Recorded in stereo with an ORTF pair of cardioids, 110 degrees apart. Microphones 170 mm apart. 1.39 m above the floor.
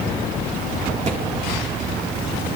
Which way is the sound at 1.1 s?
45° right.